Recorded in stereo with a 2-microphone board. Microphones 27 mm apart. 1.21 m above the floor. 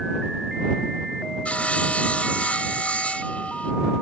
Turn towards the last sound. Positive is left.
turn(degrees=65)  # may be behind; listen again after turning